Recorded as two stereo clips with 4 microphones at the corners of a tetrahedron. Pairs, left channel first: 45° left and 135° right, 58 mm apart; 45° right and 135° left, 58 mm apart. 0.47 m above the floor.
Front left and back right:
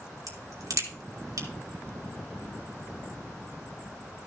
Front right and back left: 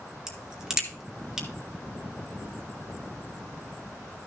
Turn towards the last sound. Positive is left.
turn(degrees=-145)